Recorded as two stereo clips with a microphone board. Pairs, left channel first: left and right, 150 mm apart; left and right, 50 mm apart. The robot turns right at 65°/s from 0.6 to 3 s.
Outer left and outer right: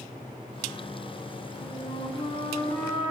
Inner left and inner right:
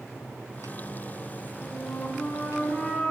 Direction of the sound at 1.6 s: 80° left.